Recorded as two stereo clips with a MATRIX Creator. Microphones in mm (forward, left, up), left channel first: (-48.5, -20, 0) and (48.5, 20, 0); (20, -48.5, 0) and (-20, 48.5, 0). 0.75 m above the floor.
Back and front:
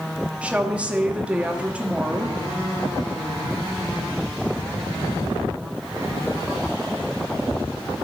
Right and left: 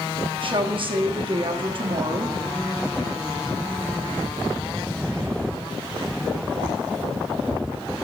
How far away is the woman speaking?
About 0.9 m.